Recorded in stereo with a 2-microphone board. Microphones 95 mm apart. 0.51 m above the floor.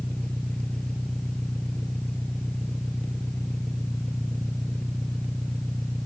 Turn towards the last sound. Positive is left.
turn(degrees=10)  # may be behind; listen again after turning